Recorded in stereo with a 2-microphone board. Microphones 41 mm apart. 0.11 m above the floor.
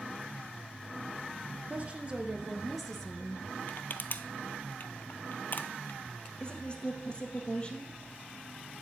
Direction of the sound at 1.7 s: 40° right (ahead or behind).